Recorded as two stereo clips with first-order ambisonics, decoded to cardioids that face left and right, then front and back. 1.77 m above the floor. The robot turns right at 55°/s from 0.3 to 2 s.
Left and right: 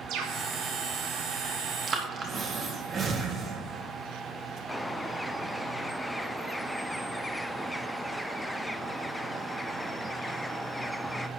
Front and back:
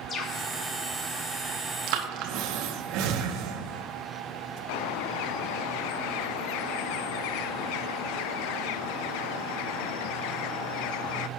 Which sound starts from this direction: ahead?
A bird, at 4.7 s.